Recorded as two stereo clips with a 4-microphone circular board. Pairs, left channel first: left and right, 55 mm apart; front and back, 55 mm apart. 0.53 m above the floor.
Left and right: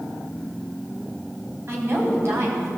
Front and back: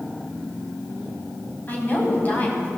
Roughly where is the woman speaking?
Ahead right.